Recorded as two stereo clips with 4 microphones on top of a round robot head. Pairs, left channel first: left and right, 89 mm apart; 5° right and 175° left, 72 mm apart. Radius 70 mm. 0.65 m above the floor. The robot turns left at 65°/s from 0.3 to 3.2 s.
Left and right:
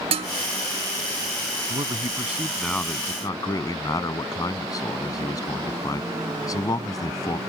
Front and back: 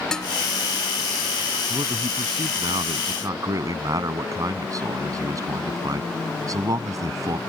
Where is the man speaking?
125° right; by 7.4 s 140° left.